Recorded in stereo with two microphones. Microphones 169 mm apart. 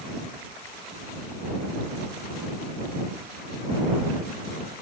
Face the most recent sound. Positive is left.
No sound to turn to.